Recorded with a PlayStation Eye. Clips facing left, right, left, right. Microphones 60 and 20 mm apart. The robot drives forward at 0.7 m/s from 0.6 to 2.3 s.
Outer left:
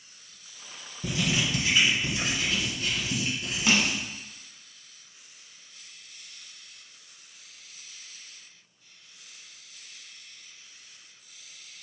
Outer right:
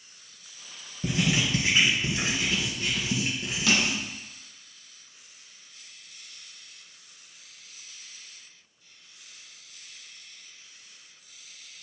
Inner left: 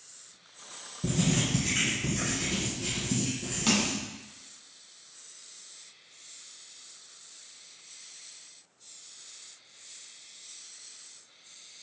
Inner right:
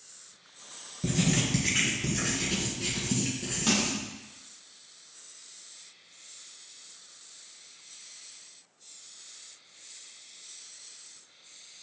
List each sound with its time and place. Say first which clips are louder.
1.0 s writing: outer right 2 dB, inner right 1 dB; 30° right (ahead or behind), 3 m; by 4.1 s 25° right (ahead or behind), 3.5 m
3.7 s crushing: outer left 1 dB, inner left 1 dB; 30° left (ahead or behind), 1.7 m